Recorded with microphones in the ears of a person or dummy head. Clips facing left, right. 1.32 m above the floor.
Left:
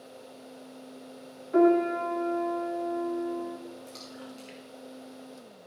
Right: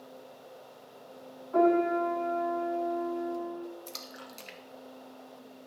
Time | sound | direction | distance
1.5 | a piano | 30° left (ahead or behind) | 3 m
3.9 | a splash | 65° right (ahead or behind) | 0.8 m